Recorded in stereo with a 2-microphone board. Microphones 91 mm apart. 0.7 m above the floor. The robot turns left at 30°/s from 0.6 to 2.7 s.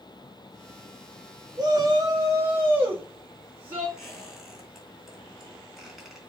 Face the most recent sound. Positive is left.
turn(degrees=0)  # may be behind; listen again after turning